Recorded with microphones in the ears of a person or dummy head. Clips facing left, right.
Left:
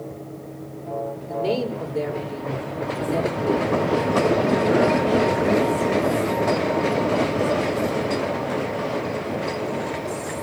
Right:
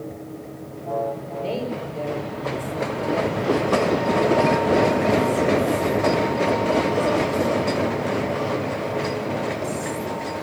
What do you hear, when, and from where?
1.3 s a woman speaking: 70° left (ahead or behind), 5.5 m